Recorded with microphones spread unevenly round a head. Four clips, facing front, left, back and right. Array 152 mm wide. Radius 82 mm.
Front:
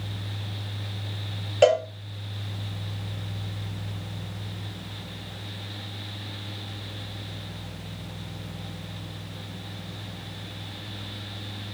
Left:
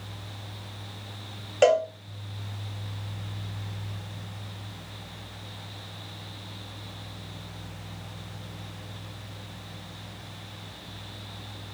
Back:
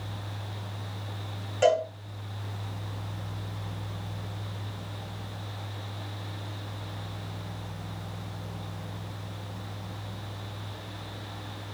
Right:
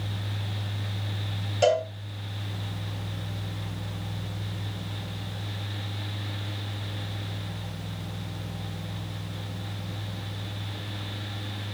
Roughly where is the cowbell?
Ahead left.